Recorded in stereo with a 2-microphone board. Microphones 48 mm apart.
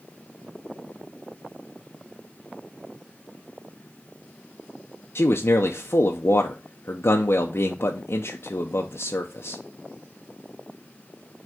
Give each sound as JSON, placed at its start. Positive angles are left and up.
{"t": 5.2, "sound": "a man speaking", "side_deg": 60, "distance_m": 0.6}